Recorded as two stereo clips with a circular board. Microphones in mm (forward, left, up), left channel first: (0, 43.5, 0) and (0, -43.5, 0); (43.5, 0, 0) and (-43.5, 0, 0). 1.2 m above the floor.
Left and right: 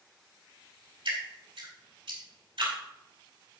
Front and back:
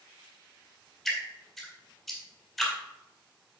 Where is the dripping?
90° right, 4 m.